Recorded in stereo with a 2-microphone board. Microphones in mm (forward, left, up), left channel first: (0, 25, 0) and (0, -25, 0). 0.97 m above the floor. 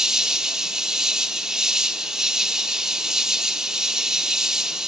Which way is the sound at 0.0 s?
10° right (ahead or behind).